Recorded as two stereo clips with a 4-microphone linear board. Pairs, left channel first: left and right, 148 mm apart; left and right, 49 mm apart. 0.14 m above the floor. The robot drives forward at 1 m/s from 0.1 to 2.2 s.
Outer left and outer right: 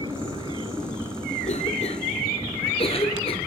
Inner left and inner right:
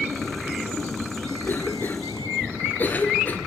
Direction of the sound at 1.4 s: 45° left (ahead or behind).